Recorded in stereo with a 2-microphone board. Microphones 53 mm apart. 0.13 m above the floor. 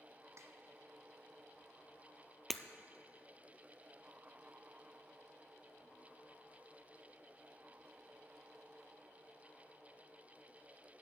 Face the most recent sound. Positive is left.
turn(degrees=5)  # may be behind; listen again after turning